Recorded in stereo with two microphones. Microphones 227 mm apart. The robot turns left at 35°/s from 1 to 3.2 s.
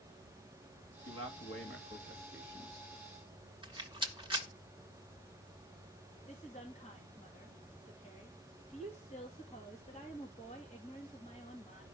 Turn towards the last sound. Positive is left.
turn(degrees=30)  # may be behind; listen again after turning